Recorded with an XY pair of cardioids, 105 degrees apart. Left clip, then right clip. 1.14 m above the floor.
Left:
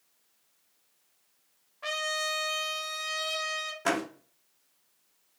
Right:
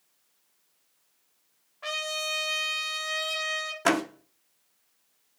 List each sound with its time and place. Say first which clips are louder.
1.8 s a trumpet: even; 5° right, 0.7 m
3.9 s a door slam: right 4 dB; 40° right, 0.5 m